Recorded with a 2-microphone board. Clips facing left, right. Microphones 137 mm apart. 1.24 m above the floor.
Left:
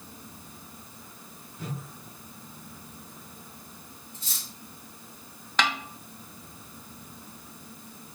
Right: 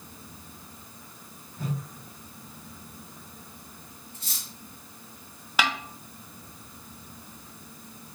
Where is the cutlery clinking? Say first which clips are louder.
Even; 65° right (ahead or behind), 2 m.